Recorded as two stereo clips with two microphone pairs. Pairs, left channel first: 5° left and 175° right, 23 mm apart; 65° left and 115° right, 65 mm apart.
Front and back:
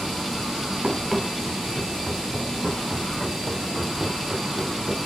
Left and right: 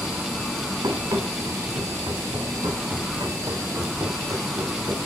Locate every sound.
0.8 s running footsteps: 95° right, 3.5 m; by 5.1 s 85° right, 6.5 m